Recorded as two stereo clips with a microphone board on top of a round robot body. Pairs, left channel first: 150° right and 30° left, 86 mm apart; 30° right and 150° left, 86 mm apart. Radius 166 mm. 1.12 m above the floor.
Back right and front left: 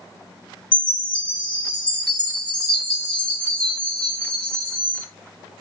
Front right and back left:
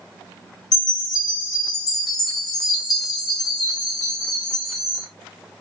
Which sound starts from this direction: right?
A chime, at 0.7 s.